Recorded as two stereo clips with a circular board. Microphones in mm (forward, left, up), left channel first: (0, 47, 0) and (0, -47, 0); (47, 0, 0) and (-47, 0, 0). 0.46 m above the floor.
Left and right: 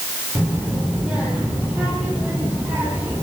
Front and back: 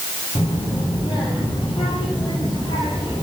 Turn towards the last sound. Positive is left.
turn(degrees=-20)